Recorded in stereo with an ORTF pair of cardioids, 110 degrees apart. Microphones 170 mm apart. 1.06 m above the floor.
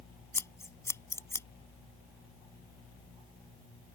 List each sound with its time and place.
0.3 s scissors: 15° left